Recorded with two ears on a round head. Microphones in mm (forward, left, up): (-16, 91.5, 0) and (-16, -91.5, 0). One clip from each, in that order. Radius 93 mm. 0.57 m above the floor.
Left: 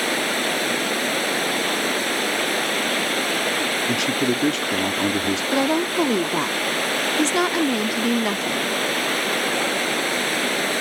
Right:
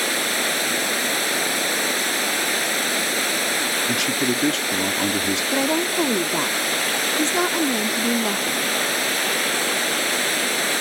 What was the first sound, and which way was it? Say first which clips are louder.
Running water: even; 25° right (ahead or behind).